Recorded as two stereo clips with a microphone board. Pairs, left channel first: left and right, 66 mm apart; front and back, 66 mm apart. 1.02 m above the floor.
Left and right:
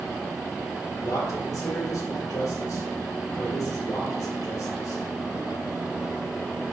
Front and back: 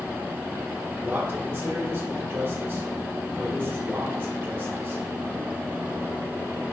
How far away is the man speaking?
About 2.5 m.